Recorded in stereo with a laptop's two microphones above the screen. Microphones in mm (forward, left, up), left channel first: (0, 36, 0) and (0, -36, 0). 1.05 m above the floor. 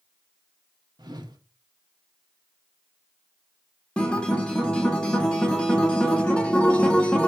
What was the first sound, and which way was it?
A whoosh, 65° right (ahead or behind).